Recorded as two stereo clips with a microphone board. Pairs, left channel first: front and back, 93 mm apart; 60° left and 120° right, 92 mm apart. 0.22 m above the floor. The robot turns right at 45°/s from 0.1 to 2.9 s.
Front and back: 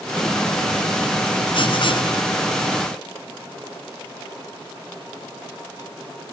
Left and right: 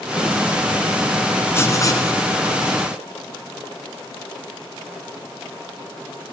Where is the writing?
5° right, 1.8 m; by 2.2 s 25° left, 1.8 m.